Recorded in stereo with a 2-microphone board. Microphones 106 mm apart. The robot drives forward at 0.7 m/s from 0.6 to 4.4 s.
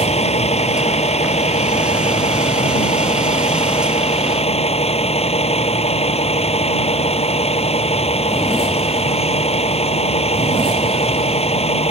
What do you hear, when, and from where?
0.0 s a vehicle: 85° left; by 11.9 s 75° left (ahead or behind)